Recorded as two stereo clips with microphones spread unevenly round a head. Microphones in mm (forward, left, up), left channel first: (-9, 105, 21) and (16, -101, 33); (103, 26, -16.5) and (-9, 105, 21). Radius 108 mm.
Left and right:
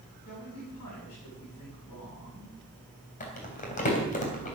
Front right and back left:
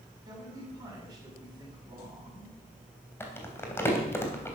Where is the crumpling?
40° left, 3 m.